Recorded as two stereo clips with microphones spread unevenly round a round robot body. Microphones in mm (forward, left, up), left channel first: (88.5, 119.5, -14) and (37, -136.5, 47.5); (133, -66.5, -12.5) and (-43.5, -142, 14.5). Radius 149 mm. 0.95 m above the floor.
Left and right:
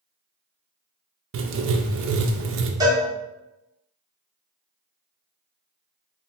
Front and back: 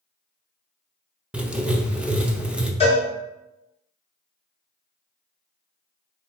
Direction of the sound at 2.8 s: 20° right.